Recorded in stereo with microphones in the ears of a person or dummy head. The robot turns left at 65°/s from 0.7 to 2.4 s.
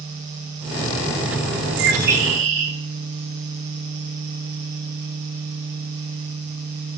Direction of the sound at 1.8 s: 100° right.